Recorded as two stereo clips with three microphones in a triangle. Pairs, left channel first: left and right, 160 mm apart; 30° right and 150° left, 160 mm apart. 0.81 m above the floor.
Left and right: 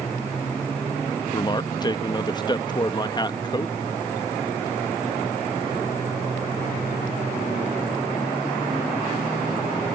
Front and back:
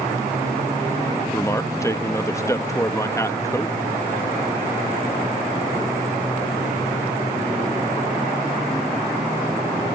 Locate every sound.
1.3 s a man speaking: 35° left